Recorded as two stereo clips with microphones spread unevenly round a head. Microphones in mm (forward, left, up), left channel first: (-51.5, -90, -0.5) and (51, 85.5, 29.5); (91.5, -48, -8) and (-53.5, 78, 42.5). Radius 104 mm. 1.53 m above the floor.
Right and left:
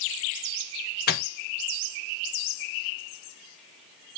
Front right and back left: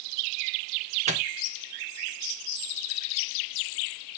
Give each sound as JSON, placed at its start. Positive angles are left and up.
{"t": 1.1, "sound": "a microwave", "azimuth_deg": -170, "distance_m": 0.7}